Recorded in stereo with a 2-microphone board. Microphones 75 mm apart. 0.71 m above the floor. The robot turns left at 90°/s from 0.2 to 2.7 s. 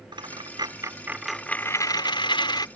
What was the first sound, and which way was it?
A dropped coin, 80° right.